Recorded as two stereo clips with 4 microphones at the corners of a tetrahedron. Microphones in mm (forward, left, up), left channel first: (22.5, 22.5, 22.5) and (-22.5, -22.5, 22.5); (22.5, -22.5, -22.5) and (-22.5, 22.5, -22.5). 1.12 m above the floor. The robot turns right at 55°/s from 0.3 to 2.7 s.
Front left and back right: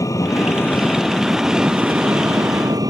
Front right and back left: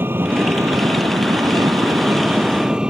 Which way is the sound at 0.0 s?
80° left.